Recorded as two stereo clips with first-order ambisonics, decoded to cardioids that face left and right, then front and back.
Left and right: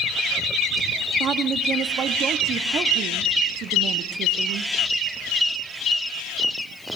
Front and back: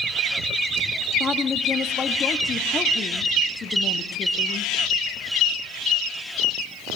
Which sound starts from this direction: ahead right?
A woman speaking, at 1.2 s.